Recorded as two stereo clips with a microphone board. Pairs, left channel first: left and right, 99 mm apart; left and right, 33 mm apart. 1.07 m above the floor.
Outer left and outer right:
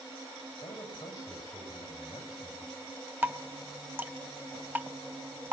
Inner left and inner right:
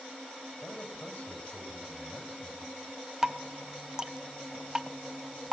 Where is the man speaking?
40° left (ahead or behind), 7 m.